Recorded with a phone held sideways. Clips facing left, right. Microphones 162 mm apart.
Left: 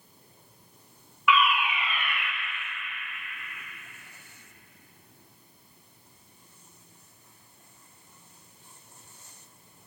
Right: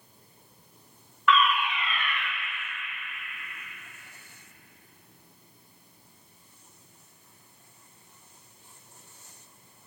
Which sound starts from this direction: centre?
A fire alarm, at 1.3 s.